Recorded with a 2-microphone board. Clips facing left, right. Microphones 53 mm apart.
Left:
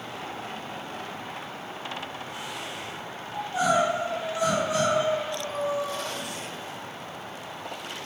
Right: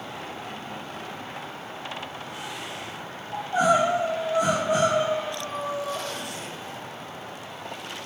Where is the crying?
50° right (ahead or behind), 3.5 m.